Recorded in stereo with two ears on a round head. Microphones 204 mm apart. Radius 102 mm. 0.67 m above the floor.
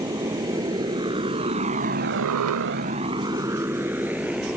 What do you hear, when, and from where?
0.0 s a motorcycle: 15° right (ahead or behind); by 4.6 s 5° right (ahead or behind)